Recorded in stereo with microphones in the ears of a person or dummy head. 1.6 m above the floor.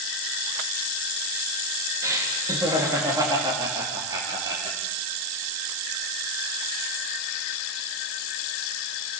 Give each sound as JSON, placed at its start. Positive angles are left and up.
{"t": 2.0, "sound": "laughter", "side_deg": -15, "distance_m": 3.0}